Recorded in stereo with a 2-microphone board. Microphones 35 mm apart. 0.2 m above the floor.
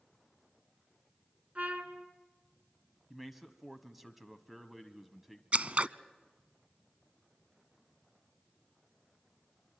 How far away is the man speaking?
About 1.1 m.